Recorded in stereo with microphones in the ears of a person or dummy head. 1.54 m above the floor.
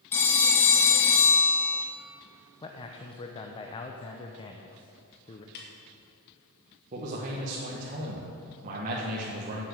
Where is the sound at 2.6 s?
25° left (ahead or behind), 0.8 m.